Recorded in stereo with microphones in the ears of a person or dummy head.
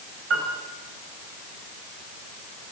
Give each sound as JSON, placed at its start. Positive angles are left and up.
{"t": 0.3, "sound": "a piano", "side_deg": -80, "distance_m": 6.0}